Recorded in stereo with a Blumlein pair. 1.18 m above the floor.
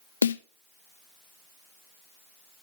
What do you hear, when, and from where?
0.2 s a snare drum: 70° left, 0.6 m